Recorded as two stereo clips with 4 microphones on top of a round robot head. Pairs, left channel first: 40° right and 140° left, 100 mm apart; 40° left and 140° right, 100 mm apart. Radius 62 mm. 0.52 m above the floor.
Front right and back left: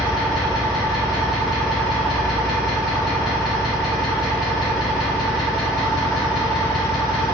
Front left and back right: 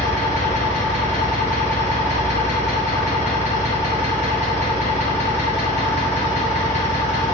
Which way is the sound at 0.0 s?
45° left.